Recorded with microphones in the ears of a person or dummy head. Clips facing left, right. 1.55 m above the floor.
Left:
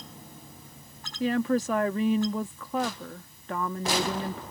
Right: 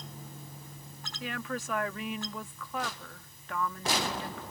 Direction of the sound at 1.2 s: 40° left (ahead or behind).